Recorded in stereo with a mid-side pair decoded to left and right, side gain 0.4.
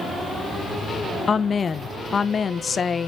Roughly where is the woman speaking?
Ahead left.